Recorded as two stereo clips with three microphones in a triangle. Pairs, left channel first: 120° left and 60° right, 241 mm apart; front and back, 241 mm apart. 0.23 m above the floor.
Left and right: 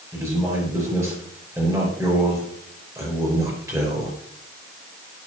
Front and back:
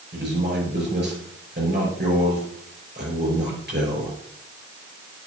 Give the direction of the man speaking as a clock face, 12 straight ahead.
5 o'clock.